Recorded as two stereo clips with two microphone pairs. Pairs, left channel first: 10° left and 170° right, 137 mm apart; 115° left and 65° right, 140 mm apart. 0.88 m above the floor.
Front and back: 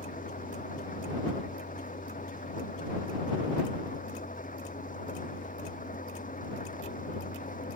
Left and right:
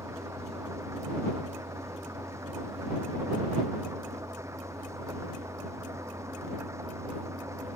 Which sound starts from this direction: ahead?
An engine running, at 0.0 s.